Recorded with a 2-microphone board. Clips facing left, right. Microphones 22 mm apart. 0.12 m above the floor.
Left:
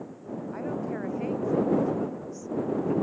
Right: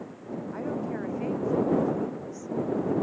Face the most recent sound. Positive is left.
turn(degrees=15)  # may be behind; listen again after turning